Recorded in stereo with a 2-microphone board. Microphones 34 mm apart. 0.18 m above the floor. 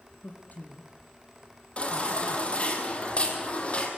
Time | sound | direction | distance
0.2 | a man speaking | 50° left (ahead or behind) | 3.5 m
1.8 | a baby crying | 35° left (ahead or behind) | 5 m